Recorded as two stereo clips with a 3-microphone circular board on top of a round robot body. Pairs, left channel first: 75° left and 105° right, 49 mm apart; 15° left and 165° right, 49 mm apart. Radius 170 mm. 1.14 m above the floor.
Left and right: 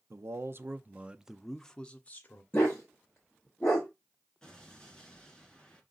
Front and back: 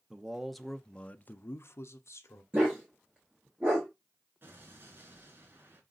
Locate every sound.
0.1 s a man speaking: 90° right, 0.8 m; by 2.4 s 25° left, 0.9 m
2.5 s a dog barking: 140° left, 0.5 m
4.4 s an explosion: 155° left, 2.5 m